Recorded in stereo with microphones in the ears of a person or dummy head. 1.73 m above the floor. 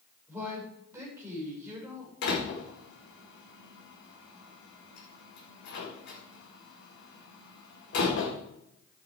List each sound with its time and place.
0.3 s a woman speaking: 10° right (ahead or behind), 7 m
2.2 s a door slam: 65° left (ahead or behind), 4.5 m